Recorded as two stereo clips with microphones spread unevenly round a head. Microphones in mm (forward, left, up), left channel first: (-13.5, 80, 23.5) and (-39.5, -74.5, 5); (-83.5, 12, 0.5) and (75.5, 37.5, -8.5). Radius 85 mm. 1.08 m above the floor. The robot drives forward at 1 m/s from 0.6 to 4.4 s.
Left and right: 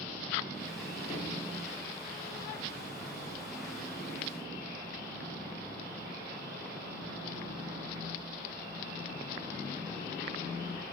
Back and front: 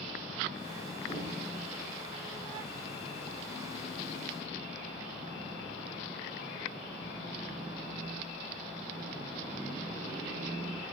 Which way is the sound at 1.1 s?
130° left.